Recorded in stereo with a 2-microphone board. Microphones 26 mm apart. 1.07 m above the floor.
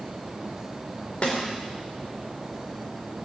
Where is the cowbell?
No cowbell in this recording.